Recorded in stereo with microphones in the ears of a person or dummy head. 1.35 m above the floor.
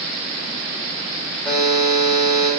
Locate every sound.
1.4 s a buzzer: 5° left (ahead or behind), 2 m